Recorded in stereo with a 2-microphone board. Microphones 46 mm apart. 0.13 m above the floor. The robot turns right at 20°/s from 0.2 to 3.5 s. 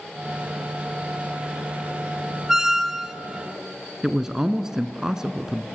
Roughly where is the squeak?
Centre.